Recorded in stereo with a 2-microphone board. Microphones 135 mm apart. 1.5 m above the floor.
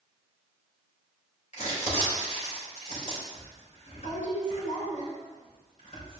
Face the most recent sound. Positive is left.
turn(degrees=55)  # may be behind; listen again after turning